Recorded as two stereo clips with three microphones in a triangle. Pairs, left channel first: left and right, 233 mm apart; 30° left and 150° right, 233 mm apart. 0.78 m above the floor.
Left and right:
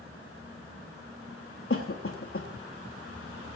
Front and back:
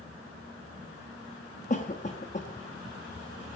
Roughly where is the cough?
Left.